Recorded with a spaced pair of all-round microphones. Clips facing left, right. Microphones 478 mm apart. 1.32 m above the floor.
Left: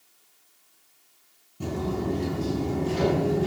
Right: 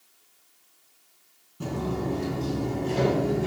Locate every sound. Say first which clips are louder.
1.6 s footsteps: left 1 dB; 5° left (ahead or behind), 2.0 m; by 3.5 s 10° left (ahead or behind), 1.4 m